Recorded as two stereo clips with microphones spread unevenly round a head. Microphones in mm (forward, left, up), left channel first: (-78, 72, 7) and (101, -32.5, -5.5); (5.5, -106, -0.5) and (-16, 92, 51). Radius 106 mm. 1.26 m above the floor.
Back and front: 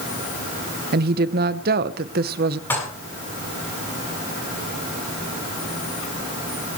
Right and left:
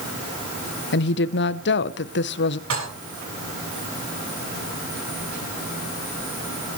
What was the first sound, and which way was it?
A woman speaking, 75° right.